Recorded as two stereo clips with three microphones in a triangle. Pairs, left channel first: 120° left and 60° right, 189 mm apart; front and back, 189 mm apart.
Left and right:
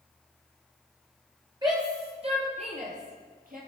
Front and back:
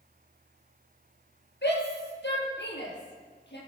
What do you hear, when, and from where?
1.6 s a shout: 10° left, 4.5 m; by 3.6 s 20° right, 6 m